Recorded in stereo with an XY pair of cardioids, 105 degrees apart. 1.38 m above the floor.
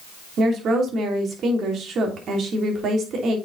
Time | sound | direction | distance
0.4 | a woman speaking | 60° right | 3 m